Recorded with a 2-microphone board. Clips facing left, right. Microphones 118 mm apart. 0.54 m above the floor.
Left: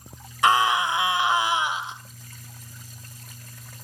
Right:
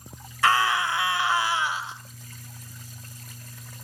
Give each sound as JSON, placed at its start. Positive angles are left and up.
{"t": 0.4, "sound": "a scream", "side_deg": 20, "distance_m": 2.5}